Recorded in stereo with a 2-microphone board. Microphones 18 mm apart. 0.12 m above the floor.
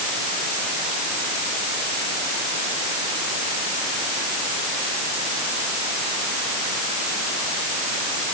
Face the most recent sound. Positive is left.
No sound to turn to.